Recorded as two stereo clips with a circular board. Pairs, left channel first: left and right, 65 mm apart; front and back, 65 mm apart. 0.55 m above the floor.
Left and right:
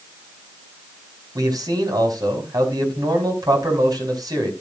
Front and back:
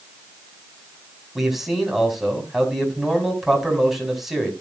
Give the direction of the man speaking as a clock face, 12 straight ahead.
3 o'clock.